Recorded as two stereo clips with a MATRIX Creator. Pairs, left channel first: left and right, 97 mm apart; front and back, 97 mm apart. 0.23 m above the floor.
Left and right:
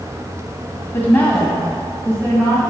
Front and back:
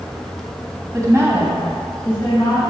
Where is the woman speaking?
150° left, 1.5 m; by 2.6 s 35° right, 1.8 m.